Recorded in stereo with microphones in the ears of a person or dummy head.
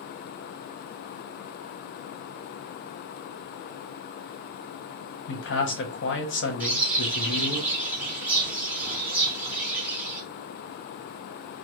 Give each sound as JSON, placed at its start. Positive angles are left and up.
{"t": 5.3, "sound": "a man speaking", "side_deg": 55, "distance_m": 0.7}
{"t": 6.6, "sound": "a bird", "side_deg": -5, "distance_m": 0.9}